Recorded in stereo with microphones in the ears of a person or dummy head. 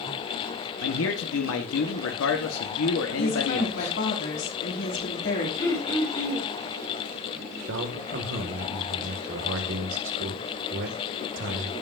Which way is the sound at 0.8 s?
80° left.